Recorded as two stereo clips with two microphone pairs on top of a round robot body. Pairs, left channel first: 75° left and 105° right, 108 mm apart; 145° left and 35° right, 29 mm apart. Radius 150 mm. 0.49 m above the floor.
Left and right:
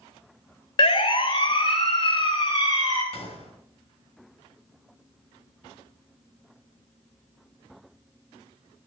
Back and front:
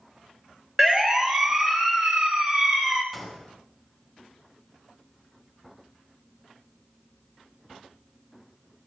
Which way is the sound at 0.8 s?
40° left.